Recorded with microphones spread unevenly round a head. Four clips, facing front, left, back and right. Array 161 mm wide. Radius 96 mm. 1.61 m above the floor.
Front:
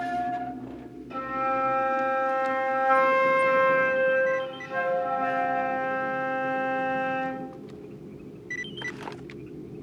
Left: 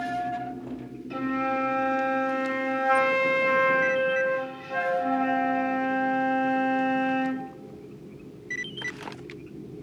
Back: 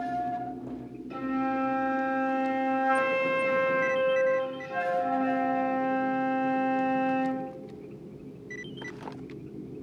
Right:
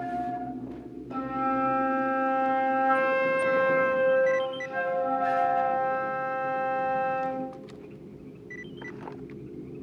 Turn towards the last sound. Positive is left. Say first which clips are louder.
# left 1 dB, front 1 dB
turn(degrees=95)